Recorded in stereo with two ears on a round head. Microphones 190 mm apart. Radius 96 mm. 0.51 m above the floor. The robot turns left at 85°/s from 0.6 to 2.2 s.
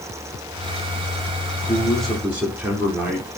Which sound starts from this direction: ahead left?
A man speaking, at 1.5 s.